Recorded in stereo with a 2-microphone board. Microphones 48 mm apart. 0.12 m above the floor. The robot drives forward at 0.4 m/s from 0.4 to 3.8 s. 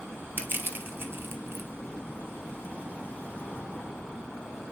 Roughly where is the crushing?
Right.